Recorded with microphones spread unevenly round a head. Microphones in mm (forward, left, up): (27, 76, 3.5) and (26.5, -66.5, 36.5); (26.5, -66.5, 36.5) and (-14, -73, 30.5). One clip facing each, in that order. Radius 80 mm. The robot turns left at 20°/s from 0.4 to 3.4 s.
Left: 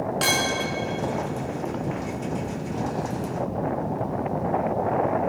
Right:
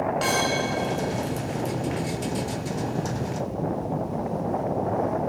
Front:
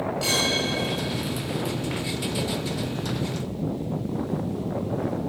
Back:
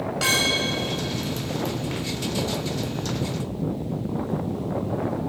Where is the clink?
145° left, 2.5 m; by 0.7 s 140° left, 2.5 m.